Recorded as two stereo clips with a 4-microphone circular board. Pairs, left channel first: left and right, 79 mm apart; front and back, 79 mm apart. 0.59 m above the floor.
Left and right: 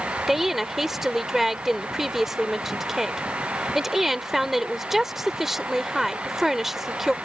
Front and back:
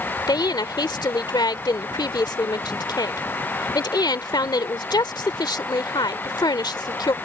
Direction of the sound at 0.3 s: 5° right.